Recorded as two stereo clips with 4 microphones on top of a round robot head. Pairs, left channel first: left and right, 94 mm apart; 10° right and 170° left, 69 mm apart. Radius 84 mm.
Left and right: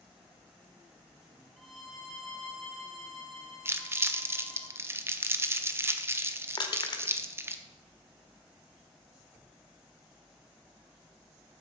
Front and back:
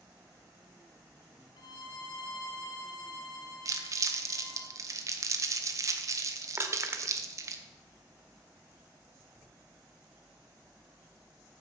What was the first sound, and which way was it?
A violin, 5° left.